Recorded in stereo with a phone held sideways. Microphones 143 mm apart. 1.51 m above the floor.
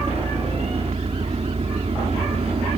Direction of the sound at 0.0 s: 45° right (ahead or behind).